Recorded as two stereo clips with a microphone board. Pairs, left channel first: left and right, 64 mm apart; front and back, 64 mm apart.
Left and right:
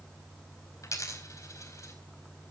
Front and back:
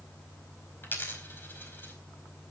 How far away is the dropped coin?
About 4.5 m.